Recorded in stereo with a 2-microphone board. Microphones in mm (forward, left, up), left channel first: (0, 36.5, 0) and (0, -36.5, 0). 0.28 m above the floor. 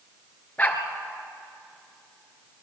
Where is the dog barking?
20° left (ahead or behind), 2 m.